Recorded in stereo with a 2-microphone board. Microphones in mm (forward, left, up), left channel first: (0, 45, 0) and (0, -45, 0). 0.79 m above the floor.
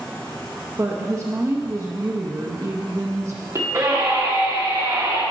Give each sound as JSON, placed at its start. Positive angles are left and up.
{"t": 0.8, "sound": "a woman speaking", "side_deg": -35, "distance_m": 0.9}
{"t": 3.5, "sound": "a scream", "side_deg": -40, "distance_m": 1.9}